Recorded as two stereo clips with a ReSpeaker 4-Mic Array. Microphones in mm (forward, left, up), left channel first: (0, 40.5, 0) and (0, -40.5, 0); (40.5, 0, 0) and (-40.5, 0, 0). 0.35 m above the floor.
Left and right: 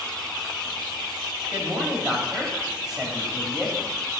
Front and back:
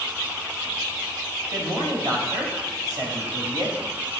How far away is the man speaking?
About 1.9 m.